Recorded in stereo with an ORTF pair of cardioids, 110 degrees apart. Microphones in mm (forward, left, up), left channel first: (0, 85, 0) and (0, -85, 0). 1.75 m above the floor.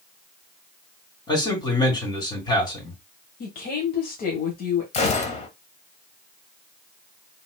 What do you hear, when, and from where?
1.3 s a man speaking: 25° left, 2.5 m
3.4 s a woman speaking: 55° left, 1.3 m
4.9 s a gunshot: 40° left, 1.0 m